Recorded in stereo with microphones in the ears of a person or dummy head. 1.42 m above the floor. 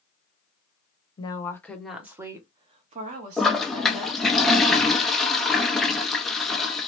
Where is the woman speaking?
25° left (ahead or behind), 0.7 m; by 4.4 s 60° right (ahead or behind), 1.5 m.